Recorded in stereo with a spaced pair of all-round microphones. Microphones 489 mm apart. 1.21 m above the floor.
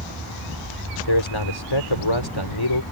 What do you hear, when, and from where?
1.1 s a man speaking: 60° left (ahead or behind)